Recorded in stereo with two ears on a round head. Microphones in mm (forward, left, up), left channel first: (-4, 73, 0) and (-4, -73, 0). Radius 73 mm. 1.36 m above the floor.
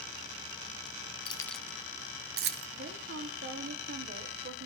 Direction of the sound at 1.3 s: 30° left (ahead or behind).